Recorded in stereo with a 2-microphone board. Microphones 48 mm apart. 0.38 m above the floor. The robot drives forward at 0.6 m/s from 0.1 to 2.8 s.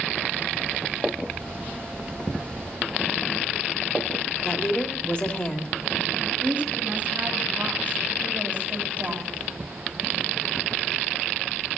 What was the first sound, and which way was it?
A woman speaking, 25° left (ahead or behind).